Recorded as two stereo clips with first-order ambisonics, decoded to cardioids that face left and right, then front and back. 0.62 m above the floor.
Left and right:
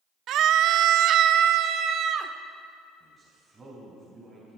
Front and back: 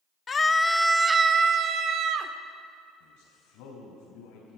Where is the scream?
60° right, 0.8 m; by 2.3 s 140° right, 1.4 m.